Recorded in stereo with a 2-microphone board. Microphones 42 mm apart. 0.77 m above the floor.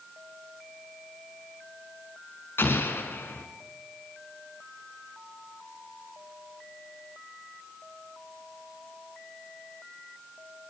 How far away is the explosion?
About 3.5 m.